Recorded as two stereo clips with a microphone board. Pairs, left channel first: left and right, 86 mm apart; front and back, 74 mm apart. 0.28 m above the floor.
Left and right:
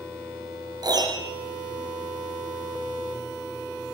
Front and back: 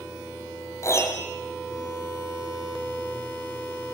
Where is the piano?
50° right, 5.5 m.